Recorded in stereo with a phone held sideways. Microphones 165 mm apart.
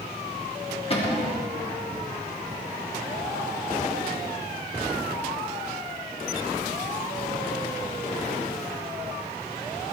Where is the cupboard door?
35° left (ahead or behind), 1.3 m.